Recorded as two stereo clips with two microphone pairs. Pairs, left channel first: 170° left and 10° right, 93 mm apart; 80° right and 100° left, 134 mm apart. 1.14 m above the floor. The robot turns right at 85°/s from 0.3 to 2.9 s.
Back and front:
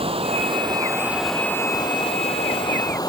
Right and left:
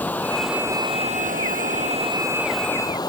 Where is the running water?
5° right; by 3.1 s 140° right.